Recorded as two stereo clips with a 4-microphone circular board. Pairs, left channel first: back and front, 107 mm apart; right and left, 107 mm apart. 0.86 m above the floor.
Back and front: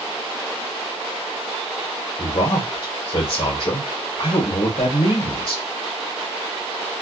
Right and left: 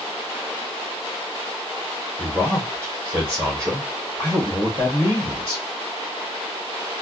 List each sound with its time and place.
2.2 s a man speaking: 150° left, 0.9 m